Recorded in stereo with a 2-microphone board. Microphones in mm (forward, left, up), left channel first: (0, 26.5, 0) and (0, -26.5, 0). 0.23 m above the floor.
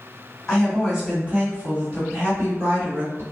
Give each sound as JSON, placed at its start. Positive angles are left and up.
{"t": 0.5, "sound": "a woman speaking", "side_deg": 10, "distance_m": 1.6}